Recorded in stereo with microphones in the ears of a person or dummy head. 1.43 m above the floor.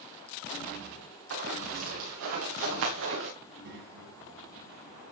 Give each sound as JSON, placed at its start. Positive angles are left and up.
{"t": 1.3, "sound": "running footsteps", "side_deg": -75, "distance_m": 7.0}
{"t": 3.4, "sound": "a child speaking", "side_deg": -60, "distance_m": 6.5}